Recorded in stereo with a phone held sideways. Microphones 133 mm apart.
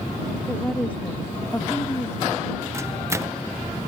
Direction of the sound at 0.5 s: 5° left (ahead or behind).